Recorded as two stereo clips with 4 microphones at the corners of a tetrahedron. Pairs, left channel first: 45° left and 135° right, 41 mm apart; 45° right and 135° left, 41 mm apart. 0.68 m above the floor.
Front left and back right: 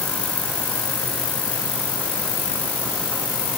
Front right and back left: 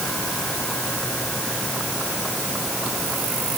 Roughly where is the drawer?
No drawer in this recording.